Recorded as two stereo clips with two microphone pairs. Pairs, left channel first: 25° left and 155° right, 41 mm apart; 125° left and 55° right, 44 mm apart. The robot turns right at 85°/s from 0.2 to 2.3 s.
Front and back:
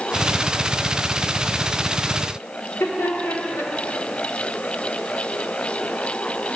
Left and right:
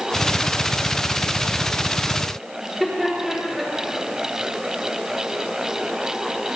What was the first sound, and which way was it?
Laughter, 30° left.